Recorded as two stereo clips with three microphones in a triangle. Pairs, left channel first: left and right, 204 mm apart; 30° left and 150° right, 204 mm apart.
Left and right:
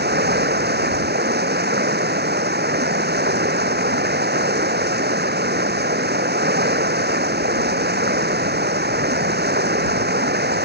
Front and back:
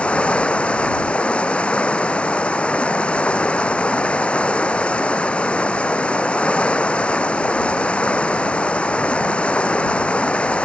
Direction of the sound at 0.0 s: 55° right.